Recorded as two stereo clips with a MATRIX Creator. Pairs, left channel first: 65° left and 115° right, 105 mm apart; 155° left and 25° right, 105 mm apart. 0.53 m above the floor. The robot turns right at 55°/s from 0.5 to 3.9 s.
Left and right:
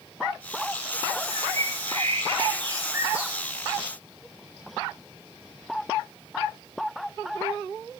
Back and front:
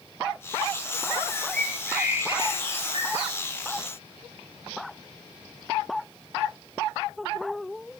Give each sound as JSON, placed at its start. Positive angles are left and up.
{"t": 1.3, "sound": "a bird", "azimuth_deg": -135, "distance_m": 7.0}